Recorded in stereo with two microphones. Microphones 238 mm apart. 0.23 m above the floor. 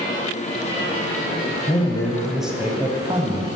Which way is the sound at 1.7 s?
20° left (ahead or behind).